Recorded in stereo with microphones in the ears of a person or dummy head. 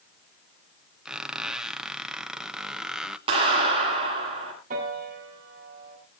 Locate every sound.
1.1 s a squeak: 5° right (ahead or behind), 0.7 m
3.3 s a clap: 30° right (ahead or behind), 10 m
4.7 s a piano: 50° right (ahead or behind), 8 m